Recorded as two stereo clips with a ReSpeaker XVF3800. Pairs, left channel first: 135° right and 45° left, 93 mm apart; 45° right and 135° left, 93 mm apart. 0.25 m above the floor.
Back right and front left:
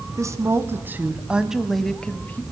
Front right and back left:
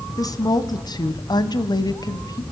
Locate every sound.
0.2 s a woman speaking: 5° right, 2 m; by 2.4 s 75° right, 1.6 m